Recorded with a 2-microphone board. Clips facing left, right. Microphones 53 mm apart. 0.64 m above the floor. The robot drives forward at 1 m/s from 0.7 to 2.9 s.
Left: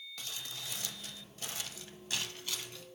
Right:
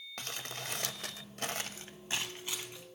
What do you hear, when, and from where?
0.2 s crumpling: 50° right (ahead or behind), 0.7 m; by 2.9 s 15° right (ahead or behind), 1.9 m